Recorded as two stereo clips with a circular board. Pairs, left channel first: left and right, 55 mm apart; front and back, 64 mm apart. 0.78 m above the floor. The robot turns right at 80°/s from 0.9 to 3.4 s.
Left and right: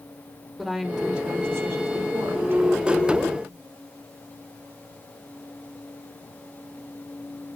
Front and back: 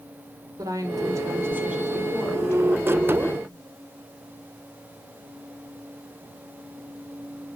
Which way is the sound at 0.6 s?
175° right.